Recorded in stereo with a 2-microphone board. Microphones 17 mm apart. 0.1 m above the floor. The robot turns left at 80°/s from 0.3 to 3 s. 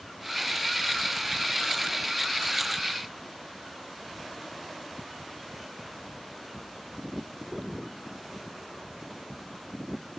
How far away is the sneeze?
I don't hear a sneeze.